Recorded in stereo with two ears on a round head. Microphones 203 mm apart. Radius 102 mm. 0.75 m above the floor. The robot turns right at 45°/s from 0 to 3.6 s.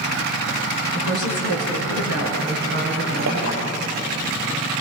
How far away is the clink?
About 9.5 m.